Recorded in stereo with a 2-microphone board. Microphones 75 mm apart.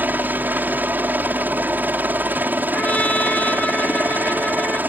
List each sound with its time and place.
0.0 s a helicopter: 25° right (ahead or behind)
2.7 s a trumpet: 20° left (ahead or behind)